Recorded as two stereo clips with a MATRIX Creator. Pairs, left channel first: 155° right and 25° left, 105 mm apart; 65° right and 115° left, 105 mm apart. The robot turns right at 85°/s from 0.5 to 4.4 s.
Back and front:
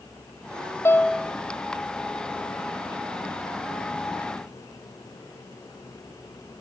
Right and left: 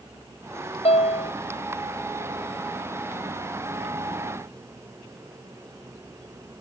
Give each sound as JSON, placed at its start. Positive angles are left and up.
{"t": 0.8, "sound": "a piano", "azimuth_deg": -90}